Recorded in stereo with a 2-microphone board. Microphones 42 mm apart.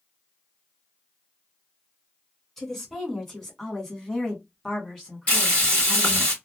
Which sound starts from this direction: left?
Frying, at 5.3 s.